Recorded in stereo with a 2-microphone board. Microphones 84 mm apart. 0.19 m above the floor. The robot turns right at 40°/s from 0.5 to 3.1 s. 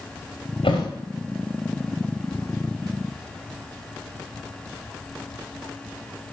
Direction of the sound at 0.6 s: 80° left.